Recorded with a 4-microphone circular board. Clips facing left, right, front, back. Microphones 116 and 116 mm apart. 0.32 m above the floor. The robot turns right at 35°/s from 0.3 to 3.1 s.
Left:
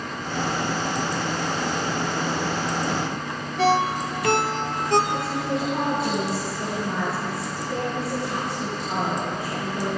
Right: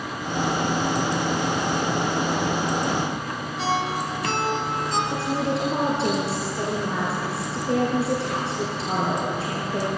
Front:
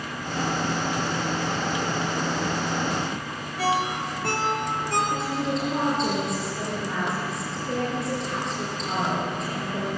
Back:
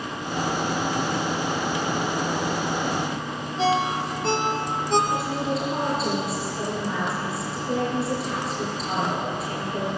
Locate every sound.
3.6 s a ringtone: 115° left, 2.5 m
5.1 s a woman speaking: 95° right, 6 m